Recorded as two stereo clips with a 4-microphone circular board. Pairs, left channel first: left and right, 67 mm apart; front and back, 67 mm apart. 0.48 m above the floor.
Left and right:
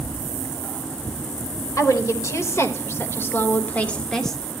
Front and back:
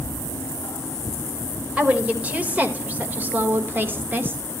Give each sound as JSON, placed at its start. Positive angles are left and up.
{"t": 1.8, "sound": "a woman speaking", "azimuth_deg": 115, "distance_m": 2.0}